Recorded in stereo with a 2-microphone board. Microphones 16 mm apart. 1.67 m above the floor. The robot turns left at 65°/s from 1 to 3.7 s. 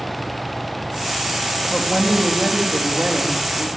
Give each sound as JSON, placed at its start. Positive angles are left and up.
{"t": 1.7, "sound": "a woman speaking", "azimuth_deg": 5, "distance_m": 3.5}